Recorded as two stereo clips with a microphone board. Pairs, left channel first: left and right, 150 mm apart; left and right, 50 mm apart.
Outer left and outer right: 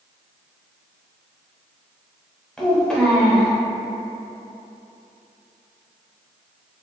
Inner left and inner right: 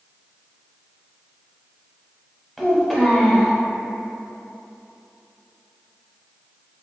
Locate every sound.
2.6 s a child speaking: 5° left (ahead or behind), 0.9 m